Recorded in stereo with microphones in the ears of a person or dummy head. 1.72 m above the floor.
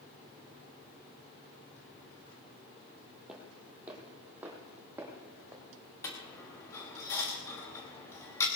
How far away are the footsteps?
About 2 m.